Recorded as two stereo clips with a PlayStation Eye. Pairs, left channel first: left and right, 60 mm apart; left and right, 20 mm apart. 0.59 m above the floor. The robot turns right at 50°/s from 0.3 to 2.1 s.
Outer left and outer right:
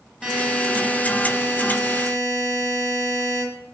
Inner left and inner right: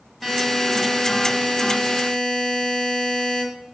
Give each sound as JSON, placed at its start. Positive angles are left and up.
{"t": 0.2, "sound": "a buzzer", "azimuth_deg": -10, "distance_m": 1.9}